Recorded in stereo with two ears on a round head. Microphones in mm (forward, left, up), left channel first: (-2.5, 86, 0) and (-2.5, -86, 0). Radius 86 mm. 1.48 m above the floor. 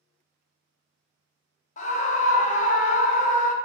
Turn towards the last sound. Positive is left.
turn(degrees=40)  # may be behind; listen again after turning